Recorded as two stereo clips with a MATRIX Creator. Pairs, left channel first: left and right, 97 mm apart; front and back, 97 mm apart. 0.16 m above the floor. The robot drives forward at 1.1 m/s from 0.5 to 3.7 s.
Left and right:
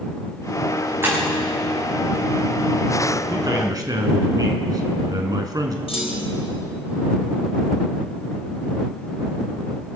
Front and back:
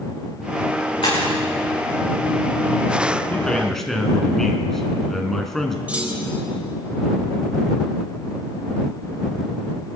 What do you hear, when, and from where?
1.0 s breaking glass: 30° right, 7 m
3.3 s a man speaking: 65° right, 2.0 m; by 5.8 s 85° right, 1.9 m
5.9 s a clunk: 105° left, 3.5 m